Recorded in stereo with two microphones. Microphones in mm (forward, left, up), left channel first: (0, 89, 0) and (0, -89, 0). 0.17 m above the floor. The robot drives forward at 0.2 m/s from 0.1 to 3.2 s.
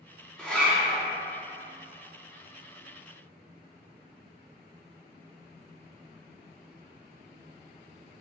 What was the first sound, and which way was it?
A zipper, 5° left (ahead or behind).